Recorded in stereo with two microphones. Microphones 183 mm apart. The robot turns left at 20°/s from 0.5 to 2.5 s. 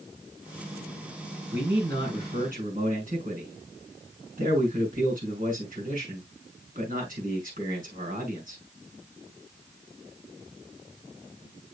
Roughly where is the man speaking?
Right.